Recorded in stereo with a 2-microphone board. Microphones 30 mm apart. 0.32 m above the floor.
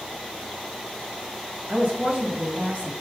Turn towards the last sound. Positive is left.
turn(degrees=-60)  # may be behind; listen again after turning